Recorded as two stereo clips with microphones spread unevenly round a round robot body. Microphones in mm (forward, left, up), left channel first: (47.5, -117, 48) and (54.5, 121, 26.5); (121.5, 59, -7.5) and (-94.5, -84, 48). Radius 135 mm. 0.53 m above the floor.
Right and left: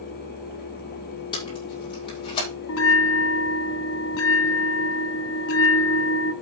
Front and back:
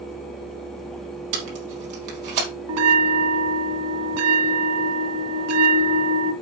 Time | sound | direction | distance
1.3 | tape being pulled | 165° right | 4 m
2.7 | a bell | 130° right | 0.8 m